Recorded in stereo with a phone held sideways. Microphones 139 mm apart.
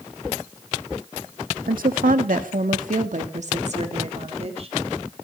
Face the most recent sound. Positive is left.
turn(degrees=-45)  # may be behind; listen again after turning